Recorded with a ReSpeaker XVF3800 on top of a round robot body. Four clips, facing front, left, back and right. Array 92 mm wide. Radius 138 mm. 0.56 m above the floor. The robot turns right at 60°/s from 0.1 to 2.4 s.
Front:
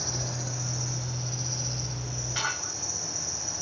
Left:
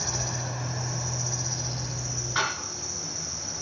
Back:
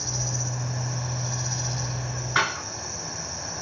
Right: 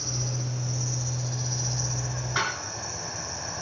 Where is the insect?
90° left, 5 m; by 3.6 s 130° right, 5 m.